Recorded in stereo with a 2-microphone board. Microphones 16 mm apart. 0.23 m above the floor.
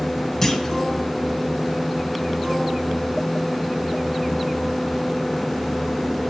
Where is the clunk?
15° left (ahead or behind), 3 m.